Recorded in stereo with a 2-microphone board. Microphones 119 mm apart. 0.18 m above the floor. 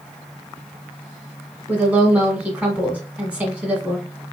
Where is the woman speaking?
10° right (ahead or behind), 1.7 m.